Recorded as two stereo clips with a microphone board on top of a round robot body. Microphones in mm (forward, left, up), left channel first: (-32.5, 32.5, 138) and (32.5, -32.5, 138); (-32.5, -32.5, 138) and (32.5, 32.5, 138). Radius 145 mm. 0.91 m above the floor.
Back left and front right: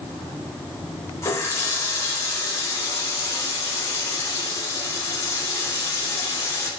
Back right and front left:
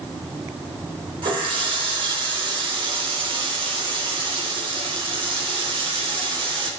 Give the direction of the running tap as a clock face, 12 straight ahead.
9 o'clock.